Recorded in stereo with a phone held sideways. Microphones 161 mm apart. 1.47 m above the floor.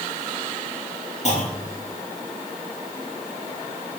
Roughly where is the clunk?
Left.